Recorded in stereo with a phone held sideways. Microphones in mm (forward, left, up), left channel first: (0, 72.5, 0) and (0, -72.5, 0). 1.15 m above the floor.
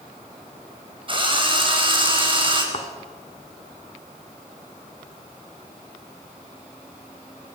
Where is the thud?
45° left (ahead or behind), 2.5 m.